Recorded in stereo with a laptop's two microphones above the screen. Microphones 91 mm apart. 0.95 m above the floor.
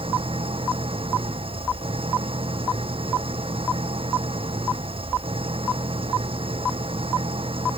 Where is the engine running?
85° right.